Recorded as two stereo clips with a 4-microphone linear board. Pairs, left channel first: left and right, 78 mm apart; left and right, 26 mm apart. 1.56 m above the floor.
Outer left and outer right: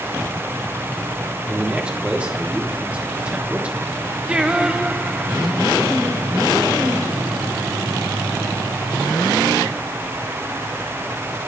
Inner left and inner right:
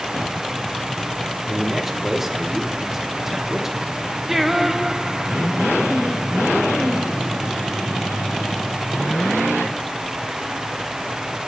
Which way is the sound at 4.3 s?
15° right (ahead or behind).